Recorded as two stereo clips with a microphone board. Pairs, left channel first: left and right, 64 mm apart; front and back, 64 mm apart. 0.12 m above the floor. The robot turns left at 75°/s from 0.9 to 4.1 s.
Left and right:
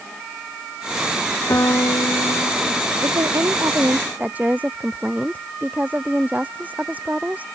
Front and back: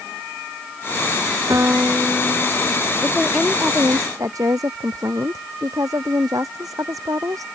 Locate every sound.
1.5 s a piano: 140° left; by 2.9 s 40° left
3.0 s a woman speaking: 75° right; by 7.5 s 155° right